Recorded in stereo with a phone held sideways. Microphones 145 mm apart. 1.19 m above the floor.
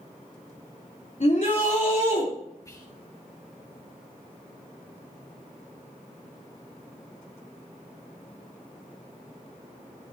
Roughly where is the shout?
Left.